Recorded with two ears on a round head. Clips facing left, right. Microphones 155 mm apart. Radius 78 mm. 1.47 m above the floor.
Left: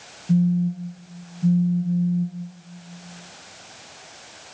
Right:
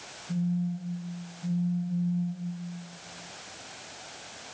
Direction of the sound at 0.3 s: 40° left (ahead or behind).